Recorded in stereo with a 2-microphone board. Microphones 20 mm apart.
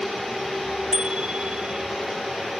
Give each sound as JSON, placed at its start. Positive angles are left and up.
{"t": 0.9, "sound": "a bicycle bell", "side_deg": -50}